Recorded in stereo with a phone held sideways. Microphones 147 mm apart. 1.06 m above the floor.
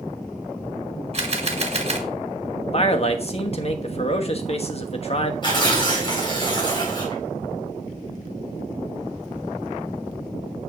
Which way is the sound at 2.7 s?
45° left (ahead or behind).